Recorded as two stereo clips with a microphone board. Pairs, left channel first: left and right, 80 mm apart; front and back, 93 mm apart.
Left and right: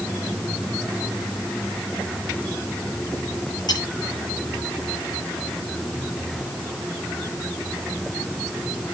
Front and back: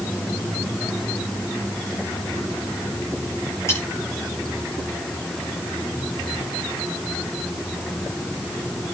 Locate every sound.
3.7 s cutlery clinking: 60° left, 8.5 m